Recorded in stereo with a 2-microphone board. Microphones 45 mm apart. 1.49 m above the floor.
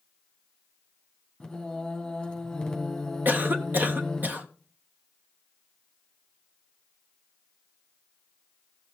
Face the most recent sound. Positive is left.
turn(degrees=-50)  # may be behind; listen again after turning